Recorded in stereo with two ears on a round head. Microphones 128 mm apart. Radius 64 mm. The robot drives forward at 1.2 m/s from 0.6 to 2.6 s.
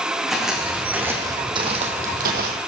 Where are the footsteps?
Centre (ahead or behind), 4.5 m; by 2.6 s 70° right (ahead or behind), 2.5 m.